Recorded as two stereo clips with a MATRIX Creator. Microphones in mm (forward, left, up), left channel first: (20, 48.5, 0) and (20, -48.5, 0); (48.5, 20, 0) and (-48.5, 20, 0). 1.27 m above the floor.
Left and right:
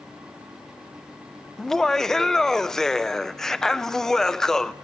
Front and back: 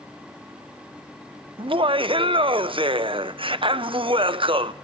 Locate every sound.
1.6 s laughter: 175° left, 0.6 m